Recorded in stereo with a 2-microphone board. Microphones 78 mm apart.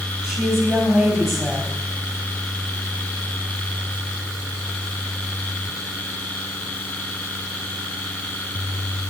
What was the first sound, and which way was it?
A woman speaking, 5° right (ahead or behind).